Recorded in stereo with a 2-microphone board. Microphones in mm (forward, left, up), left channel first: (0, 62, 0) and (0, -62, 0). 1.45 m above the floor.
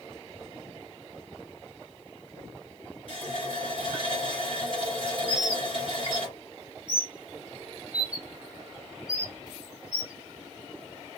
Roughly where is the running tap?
Left.